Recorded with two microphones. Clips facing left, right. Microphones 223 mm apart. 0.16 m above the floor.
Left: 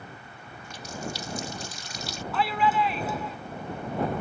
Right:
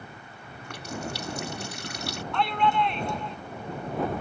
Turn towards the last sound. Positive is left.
turn(degrees=5)  # may be behind; listen again after turning